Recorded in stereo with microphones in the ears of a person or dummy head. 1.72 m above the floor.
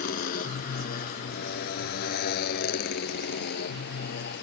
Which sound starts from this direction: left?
A motorcycle, at 0.0 s.